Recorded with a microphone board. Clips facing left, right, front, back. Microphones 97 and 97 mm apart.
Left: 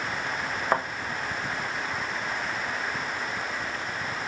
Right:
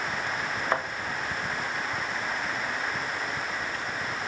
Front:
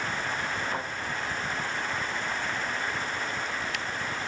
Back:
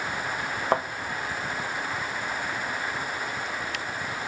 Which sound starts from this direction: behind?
A thud, at 0.7 s.